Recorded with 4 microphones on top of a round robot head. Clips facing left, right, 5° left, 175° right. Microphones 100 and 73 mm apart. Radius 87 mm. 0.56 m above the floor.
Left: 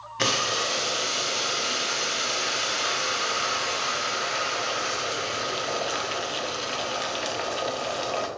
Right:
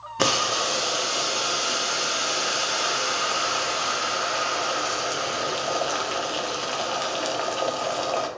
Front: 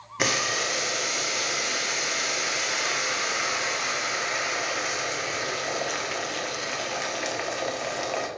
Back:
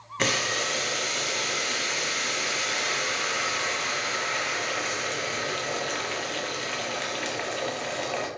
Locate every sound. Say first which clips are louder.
0.2 s boiling: right 3 dB, front 1 dB; 70° right, 1.3 m